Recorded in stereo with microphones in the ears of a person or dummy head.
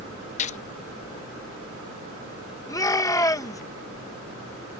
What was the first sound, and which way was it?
A gunshot, 30° left (ahead or behind).